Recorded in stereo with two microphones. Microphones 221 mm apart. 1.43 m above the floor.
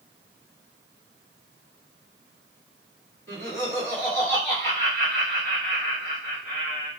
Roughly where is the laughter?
Centre.